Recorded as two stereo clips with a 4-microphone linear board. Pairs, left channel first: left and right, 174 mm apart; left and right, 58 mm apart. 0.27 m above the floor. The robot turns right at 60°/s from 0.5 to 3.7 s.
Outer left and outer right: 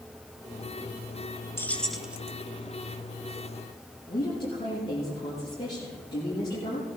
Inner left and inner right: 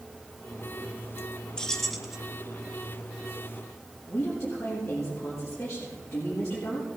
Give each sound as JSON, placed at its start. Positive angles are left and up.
{"t": 1.6, "sound": "keys jangling", "azimuth_deg": 155, "distance_m": 0.8}
{"t": 4.1, "sound": "a woman speaking", "side_deg": 25, "distance_m": 5.5}